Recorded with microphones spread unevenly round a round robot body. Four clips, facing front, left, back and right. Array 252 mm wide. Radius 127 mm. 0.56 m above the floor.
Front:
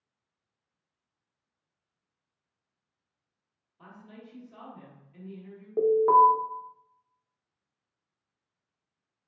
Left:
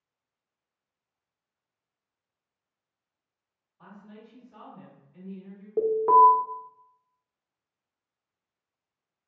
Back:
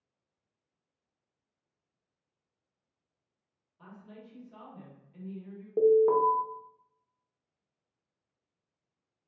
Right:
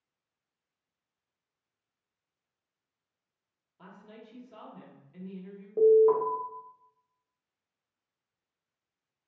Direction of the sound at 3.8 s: 105° right.